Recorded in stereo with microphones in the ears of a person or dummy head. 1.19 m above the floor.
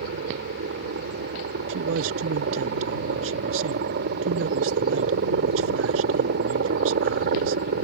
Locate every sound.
0.0 s a helicopter: 55° right (ahead or behind)
1.7 s a man speaking: 75° right (ahead or behind)